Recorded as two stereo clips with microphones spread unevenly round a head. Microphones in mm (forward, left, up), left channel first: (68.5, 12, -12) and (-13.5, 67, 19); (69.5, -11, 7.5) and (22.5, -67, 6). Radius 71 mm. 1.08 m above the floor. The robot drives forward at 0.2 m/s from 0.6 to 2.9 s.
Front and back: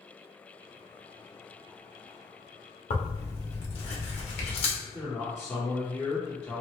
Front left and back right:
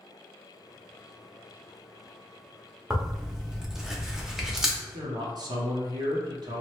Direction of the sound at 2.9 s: 45° right.